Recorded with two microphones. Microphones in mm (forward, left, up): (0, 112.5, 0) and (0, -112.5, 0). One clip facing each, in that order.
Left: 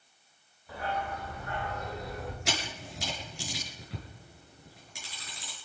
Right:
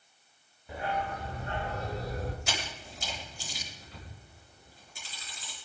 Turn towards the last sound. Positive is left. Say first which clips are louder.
# left 3 dB
turn(degrees=80)